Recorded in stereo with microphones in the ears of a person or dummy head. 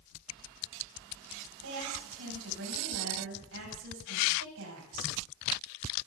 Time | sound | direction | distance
1.6 | a woman speaking | 70° right (ahead or behind) | 8 m